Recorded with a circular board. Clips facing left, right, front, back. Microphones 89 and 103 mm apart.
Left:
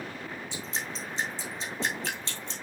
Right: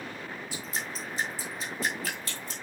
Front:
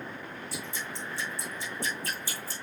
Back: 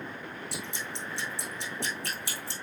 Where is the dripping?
155° left, 4 m.